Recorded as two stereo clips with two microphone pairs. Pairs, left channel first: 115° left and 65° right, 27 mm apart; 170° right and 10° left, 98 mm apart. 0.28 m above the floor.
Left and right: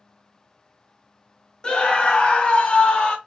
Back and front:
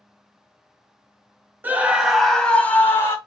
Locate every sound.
1.6 s a scream: 75° left, 1.5 m; by 3.2 s 140° left, 1.8 m